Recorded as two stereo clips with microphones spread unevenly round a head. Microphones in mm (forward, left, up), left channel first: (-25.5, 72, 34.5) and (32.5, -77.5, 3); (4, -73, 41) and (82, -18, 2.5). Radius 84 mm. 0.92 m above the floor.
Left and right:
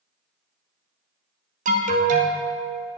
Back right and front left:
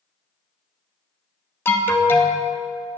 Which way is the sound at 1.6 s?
65° right.